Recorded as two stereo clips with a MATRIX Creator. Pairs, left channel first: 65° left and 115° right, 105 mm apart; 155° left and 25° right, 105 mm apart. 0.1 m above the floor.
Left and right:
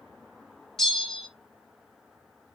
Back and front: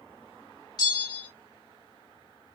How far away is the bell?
About 2 m.